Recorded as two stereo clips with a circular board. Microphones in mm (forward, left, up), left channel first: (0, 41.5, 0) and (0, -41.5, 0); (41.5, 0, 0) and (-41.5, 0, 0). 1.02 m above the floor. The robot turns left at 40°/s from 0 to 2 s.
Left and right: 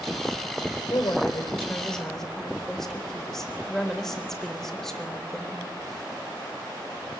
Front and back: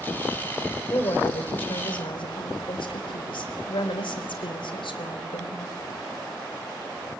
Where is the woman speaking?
50° left, 3.5 m; by 5.7 s 5° left, 3.5 m.